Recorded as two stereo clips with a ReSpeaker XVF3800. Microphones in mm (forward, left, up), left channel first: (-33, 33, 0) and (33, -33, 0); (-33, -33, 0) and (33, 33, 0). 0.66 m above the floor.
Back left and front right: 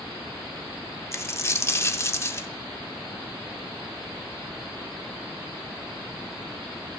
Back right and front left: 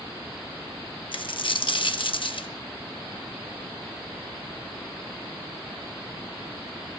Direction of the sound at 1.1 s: 165° right.